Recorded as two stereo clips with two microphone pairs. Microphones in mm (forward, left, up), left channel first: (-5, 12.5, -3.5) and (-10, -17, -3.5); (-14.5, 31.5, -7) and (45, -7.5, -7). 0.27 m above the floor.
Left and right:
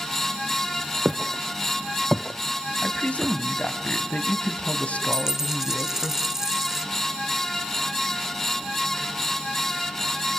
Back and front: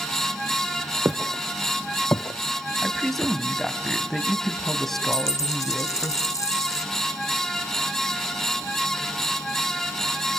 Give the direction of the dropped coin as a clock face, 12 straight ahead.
6 o'clock.